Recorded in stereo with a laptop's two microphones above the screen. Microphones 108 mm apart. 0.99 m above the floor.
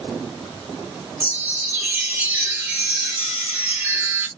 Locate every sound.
1.2 s a chime: 20° right (ahead or behind), 1.6 m